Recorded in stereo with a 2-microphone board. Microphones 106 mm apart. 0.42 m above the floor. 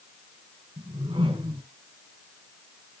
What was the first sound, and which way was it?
A whoosh, 65° right (ahead or behind).